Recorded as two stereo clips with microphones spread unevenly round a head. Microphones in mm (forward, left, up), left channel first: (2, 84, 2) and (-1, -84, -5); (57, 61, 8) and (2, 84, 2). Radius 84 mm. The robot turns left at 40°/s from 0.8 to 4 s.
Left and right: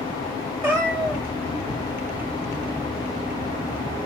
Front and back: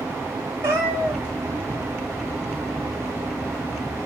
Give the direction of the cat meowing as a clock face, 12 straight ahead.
6 o'clock.